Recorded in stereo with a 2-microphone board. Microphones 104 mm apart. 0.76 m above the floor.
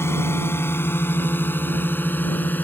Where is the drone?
25° left (ahead or behind); by 2.6 s 15° left (ahead or behind).